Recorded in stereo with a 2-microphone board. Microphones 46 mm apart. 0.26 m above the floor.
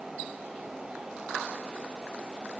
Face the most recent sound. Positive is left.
No sound to turn to.